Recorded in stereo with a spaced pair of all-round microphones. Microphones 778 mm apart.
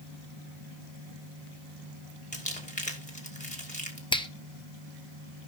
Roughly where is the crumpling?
Centre.